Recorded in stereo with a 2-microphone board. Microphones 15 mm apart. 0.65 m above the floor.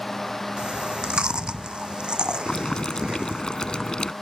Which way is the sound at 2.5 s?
60° left (ahead or behind).